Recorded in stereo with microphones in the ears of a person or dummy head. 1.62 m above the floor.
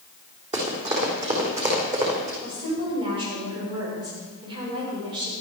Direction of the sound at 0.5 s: 35° right (ahead or behind).